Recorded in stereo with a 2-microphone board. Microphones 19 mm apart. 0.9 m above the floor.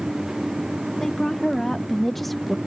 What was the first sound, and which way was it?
A woman speaking, 30° left (ahead or behind).